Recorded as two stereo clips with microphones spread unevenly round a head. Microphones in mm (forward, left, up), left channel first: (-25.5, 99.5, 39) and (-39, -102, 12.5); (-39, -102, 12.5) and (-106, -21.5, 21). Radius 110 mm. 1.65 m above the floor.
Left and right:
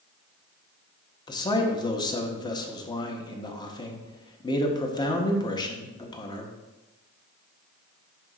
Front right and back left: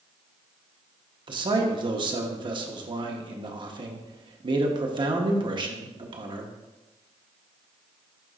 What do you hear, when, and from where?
1.3 s a man speaking: 145° left, 0.8 m